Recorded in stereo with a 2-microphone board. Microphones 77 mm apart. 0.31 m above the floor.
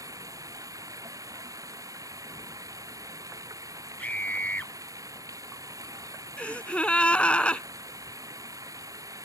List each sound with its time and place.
0.0 s running water: 45° right (ahead or behind)
4.0 s a scream: 20° left (ahead or behind)
6.4 s a gasp: 15° left (ahead or behind)